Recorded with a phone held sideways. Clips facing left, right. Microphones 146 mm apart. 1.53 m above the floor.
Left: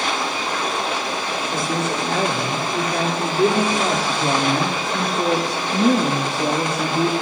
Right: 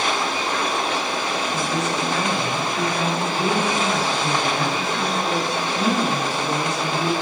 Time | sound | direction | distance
1.5 | a woman speaking | 60° left (ahead or behind) | 7 m